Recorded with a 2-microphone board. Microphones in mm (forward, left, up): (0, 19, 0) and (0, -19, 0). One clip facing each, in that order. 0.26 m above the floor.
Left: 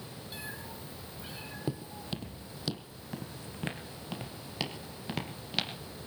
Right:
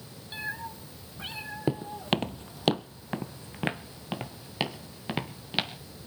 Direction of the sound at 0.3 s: 30° right (ahead or behind).